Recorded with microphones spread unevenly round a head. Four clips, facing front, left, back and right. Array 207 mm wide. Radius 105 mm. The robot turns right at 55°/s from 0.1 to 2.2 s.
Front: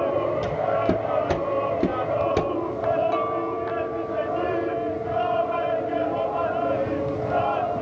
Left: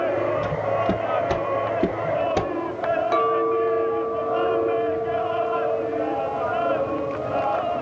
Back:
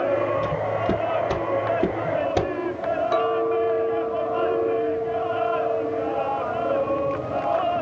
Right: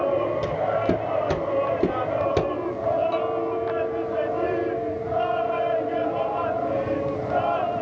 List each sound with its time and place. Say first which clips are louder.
0.4 s footsteps: even, front 1 dB; 65° right, 1.7 m; by 2.5 s 95° right, 1.3 m
3.1 s a clink: left 4 dB, back 4 dB; 90° left, 1.2 m